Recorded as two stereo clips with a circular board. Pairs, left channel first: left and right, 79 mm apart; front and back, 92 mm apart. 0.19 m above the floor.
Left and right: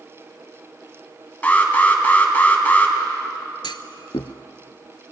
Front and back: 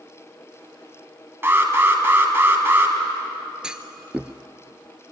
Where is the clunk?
100° left, 0.7 m.